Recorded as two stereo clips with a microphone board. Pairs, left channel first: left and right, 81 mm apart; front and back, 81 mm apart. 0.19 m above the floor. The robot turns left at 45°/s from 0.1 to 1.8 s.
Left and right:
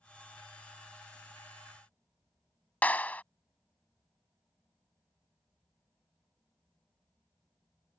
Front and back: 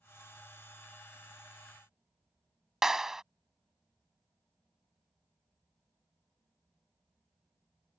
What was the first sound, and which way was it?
A clap, 105° left.